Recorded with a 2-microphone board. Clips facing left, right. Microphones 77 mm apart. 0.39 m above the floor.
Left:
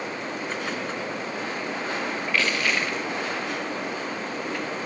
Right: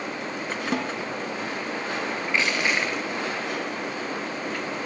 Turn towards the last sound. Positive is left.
turn(degrees=-20)  # may be behind; listen again after turning